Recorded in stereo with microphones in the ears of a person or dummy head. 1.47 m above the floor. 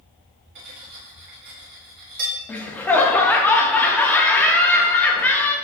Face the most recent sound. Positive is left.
turn(degrees=10)  # may be behind; listen again after turning